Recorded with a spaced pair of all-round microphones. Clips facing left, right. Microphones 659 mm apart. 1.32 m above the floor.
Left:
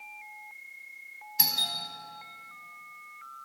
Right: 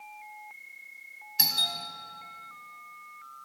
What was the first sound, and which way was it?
A doorbell, 5° right (ahead or behind).